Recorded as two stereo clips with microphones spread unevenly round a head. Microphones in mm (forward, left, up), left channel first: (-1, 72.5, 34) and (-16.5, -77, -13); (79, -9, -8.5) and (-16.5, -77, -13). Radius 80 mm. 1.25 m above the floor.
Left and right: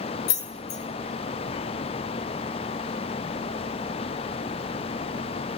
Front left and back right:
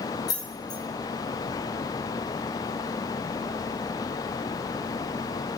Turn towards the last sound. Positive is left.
turn(degrees=100)